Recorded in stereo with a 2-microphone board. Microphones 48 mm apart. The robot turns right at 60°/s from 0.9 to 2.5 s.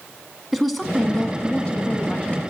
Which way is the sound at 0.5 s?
5° right.